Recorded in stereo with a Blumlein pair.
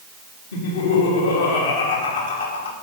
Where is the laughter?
60° left, 2.5 m.